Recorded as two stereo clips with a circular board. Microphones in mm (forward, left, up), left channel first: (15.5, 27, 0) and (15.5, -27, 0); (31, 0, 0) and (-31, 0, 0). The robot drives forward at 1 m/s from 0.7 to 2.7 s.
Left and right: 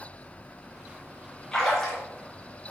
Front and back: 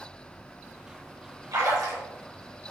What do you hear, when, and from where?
1.5 s a splash: 170° left, 3.5 m